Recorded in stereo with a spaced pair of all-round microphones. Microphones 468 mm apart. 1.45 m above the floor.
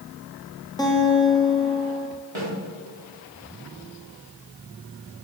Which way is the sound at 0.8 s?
10° left (ahead or behind).